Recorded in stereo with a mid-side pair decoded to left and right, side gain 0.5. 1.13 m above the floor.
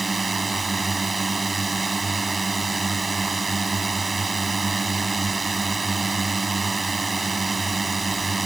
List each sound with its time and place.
0.0 s a drone: 25° right